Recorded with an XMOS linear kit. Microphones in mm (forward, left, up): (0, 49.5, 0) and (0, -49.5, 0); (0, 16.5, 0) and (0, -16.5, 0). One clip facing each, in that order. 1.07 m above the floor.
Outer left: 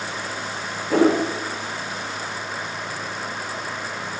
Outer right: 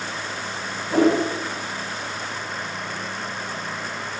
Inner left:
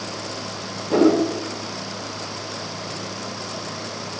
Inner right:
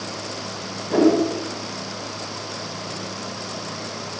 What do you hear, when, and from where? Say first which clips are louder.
0.9 s a whoosh: outer left 1 dB, even; 85° left, 5.5 m